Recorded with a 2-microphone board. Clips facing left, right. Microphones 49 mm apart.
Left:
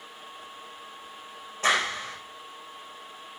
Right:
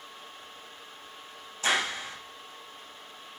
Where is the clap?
40° left (ahead or behind), 5.5 m.